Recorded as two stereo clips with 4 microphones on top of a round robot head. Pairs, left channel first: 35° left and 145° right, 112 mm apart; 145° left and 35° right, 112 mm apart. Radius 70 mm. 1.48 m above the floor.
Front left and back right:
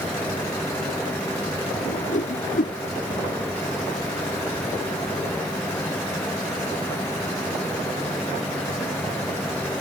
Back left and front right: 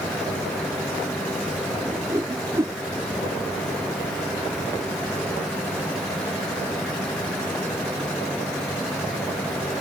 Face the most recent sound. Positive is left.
turn(degrees=30)